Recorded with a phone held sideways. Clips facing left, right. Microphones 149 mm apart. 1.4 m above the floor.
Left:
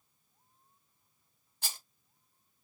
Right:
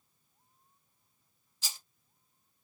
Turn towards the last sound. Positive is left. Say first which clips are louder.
# left 2 dB
turn(degrees=55)  # may be behind; listen again after turning